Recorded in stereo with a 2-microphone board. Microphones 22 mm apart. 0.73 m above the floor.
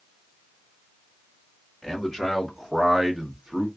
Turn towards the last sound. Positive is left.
turn(degrees=-30)  # may be behind; listen again after turning